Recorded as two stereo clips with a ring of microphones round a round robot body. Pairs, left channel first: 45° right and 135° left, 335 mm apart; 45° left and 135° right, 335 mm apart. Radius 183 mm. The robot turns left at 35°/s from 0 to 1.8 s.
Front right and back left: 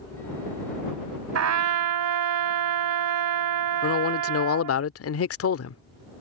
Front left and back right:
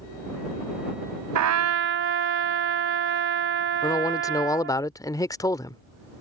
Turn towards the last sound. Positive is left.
turn(degrees=-30)